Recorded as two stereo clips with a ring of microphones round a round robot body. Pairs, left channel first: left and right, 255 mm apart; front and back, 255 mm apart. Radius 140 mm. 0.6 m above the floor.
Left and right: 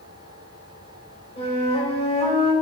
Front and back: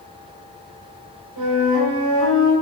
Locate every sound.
1.4 s a flute: 155° left, 3 m